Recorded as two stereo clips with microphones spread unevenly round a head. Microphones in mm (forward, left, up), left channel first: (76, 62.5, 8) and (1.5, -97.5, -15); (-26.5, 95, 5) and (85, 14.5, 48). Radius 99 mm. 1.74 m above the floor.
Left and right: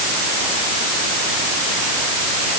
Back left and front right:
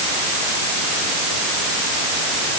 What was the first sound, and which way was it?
Only background noise.